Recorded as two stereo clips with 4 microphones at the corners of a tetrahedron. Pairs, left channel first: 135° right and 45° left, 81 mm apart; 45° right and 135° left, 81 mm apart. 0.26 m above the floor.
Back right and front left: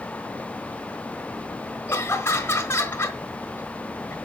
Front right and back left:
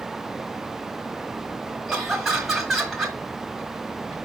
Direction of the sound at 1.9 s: 135° right.